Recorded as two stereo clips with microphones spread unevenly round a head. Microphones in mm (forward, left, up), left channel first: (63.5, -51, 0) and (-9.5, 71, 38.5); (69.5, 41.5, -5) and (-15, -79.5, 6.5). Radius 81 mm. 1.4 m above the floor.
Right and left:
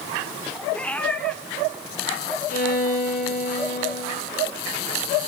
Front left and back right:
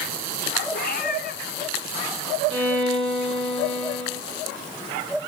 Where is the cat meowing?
25° left, 2.5 m.